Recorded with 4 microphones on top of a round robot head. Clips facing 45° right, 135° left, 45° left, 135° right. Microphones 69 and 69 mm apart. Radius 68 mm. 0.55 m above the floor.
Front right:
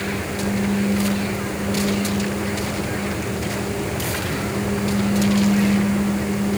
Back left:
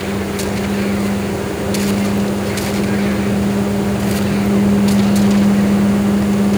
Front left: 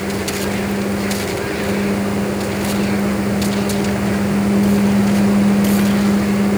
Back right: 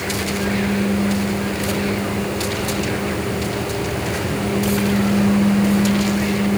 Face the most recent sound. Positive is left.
No sound to turn to.